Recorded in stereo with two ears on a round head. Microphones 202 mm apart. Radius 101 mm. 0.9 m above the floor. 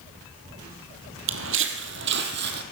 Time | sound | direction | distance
1.3 | footsteps | 55° right (ahead or behind) | 1.5 m